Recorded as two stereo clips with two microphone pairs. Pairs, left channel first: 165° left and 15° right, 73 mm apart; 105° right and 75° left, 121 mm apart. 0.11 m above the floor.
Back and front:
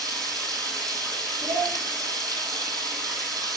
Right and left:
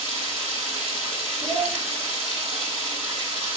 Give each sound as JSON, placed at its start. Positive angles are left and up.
{"t": 0.0, "sound": "running water", "azimuth_deg": -20, "distance_m": 3.0}
{"t": 1.4, "sound": "a child speaking", "azimuth_deg": -25, "distance_m": 2.5}